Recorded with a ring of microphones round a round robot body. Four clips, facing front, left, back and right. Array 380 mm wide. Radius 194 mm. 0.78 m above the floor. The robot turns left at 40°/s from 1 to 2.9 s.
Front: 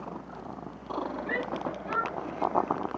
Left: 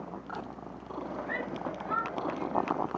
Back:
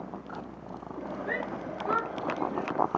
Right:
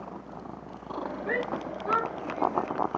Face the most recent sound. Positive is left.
turn(degrees=-165)